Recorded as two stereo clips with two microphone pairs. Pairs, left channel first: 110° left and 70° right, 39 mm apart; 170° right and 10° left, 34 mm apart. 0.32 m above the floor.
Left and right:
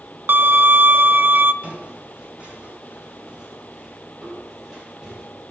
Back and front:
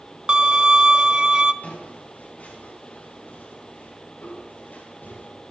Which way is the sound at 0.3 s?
50° right.